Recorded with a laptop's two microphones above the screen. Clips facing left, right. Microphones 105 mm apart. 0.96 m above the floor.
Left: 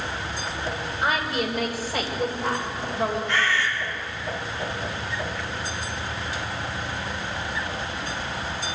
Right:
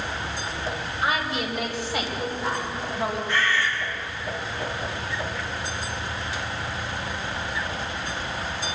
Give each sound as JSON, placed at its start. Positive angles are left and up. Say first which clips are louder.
{"t": 1.0, "sound": "a woman speaking", "louder": "left 1 dB", "side_deg": 50, "distance_m": 3.5}
{"t": 3.3, "sound": "a bird", "louder": "even", "side_deg": 75, "distance_m": 2.5}